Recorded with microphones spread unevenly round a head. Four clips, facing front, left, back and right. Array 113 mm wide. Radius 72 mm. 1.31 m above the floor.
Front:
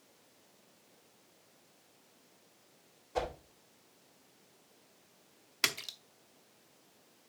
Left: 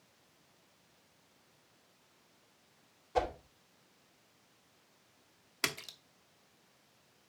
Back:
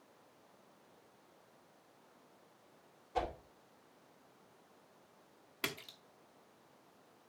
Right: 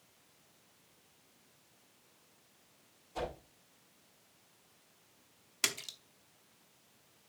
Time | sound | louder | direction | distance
3.1 | a whoosh | left 7 dB, front 2 dB | 55° left | 3 m
5.6 | a splash | left 2 dB, front 4 dB | 25° left | 0.9 m